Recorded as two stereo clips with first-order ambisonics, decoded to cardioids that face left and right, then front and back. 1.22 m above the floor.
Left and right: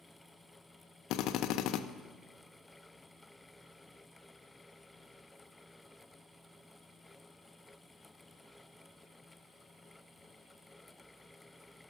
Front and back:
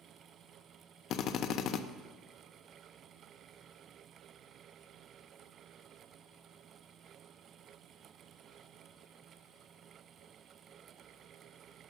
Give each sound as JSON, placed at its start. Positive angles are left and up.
{"t": 1.1, "sound": "a drill", "azimuth_deg": 50, "distance_m": 0.5}